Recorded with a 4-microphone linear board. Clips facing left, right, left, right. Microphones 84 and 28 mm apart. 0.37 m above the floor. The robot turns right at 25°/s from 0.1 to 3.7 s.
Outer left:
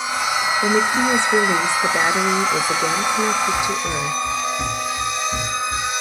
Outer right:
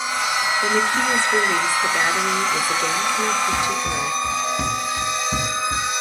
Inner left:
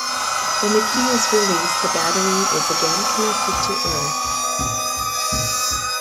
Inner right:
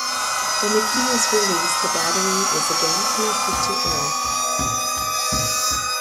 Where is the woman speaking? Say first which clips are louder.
Outer left 3 dB, inner left 2 dB; 15° left (ahead or behind), 0.8 m; by 4.2 s 20° left (ahead or behind), 0.8 m.